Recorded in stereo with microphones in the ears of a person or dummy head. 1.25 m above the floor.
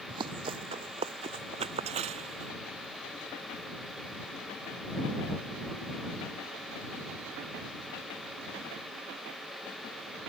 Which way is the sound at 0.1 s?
25° right (ahead or behind).